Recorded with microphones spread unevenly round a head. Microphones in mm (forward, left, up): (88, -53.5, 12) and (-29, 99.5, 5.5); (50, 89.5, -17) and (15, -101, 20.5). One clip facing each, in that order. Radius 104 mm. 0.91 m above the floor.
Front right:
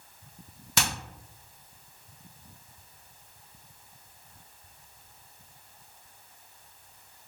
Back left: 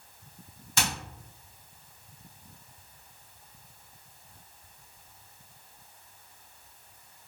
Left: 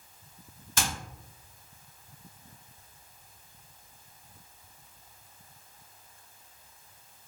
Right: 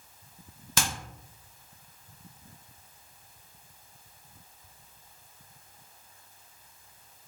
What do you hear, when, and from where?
0.8 s hammering: 80° right, 1.2 m